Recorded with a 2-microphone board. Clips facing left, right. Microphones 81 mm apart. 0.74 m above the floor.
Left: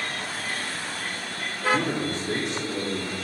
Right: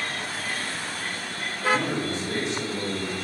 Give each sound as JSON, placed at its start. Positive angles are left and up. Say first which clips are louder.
{"t": 1.7, "sound": "a man speaking", "louder": "even", "side_deg": 60, "distance_m": 2.0}